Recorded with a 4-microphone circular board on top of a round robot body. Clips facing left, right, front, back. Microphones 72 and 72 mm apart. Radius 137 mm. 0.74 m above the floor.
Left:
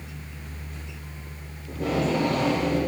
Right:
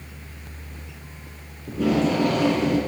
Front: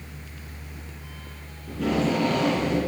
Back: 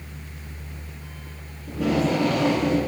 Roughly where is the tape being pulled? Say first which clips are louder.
Right 4 dB, back 2 dB; right.